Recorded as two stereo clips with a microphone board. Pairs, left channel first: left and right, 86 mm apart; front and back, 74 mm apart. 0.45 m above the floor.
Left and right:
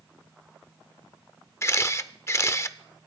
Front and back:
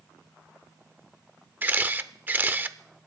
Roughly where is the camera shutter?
Behind left.